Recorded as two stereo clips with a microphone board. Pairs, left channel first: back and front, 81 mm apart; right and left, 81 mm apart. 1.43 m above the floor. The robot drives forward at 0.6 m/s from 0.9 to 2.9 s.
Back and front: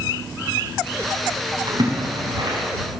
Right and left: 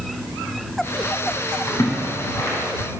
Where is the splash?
30° right, 6 m; by 2.6 s 35° right, 5.5 m.